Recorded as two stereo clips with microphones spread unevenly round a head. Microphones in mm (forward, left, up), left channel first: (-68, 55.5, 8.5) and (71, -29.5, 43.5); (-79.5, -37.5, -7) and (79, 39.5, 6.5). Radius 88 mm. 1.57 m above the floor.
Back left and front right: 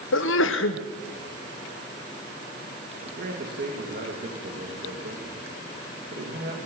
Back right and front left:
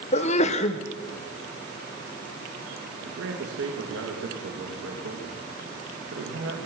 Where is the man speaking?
5° left, 3 m.